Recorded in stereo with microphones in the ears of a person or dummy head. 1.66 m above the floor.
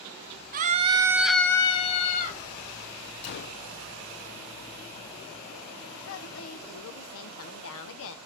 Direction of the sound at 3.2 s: 55° left (ahead or behind).